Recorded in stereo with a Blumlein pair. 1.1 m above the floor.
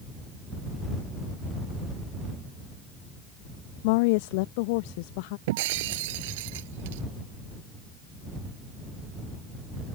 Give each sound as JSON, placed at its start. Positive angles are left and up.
{"t": 3.8, "sound": "a woman speaking", "azimuth_deg": 45}
{"t": 5.5, "sound": "breaking glass", "azimuth_deg": -50}